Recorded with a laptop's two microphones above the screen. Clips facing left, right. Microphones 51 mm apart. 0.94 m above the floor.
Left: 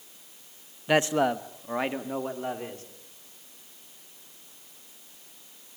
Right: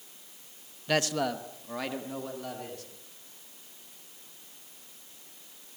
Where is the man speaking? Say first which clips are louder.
Left 5 dB; 15° left (ahead or behind), 0.7 m; by 2.8 s 30° left (ahead or behind), 2.5 m.